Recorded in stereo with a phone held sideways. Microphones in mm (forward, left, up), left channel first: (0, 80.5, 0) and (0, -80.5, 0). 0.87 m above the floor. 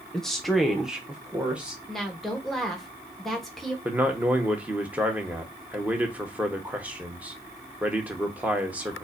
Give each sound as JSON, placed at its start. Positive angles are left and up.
{"t": 0.1, "sound": "a woman speaking", "side_deg": 5, "distance_m": 0.8}
{"t": 1.9, "sound": "a woman speaking", "side_deg": 0, "distance_m": 1.0}
{"t": 3.9, "sound": "a man speaking", "side_deg": -10, "distance_m": 0.9}